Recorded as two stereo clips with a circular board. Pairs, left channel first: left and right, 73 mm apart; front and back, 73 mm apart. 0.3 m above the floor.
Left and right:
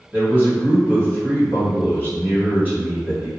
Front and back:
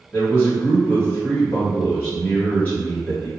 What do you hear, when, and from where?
0.1 s a man speaking: 50° right, 1.5 m